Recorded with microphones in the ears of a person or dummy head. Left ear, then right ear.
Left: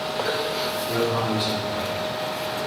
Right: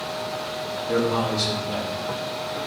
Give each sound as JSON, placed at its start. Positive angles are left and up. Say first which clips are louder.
{"t": 0.9, "sound": "a man speaking", "louder": "right 3 dB", "side_deg": -80, "distance_m": 1.6}